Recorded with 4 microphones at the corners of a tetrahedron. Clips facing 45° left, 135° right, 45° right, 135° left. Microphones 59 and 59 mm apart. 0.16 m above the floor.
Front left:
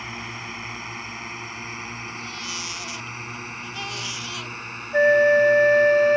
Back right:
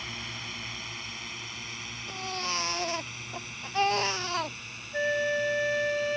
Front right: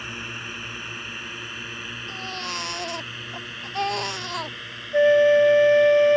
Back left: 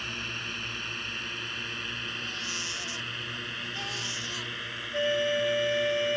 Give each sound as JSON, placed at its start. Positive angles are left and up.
{"t": 0.0, "sound": "a drone", "azimuth_deg": 20}
{"t": 2.1, "sound": "a baby crying", "azimuth_deg": -85}
{"t": 4.9, "sound": "a flute", "azimuth_deg": 0}